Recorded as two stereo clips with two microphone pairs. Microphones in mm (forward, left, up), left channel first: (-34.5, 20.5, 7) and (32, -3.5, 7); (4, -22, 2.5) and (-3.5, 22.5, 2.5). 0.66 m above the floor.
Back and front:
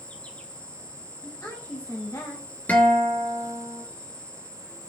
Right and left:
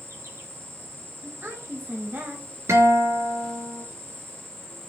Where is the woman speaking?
130° left, 3 m.